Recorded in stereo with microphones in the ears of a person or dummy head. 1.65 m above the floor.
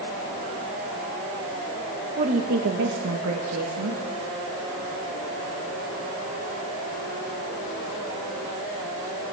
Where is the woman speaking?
35° right (ahead or behind), 1.7 m; by 4.0 s 80° right, 3 m.